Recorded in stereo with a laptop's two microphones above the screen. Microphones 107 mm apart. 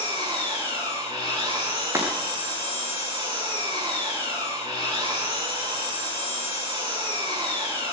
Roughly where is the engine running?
Right.